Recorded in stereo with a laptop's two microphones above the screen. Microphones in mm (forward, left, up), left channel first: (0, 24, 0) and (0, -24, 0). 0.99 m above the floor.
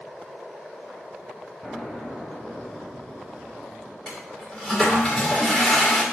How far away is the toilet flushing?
About 1.9 m.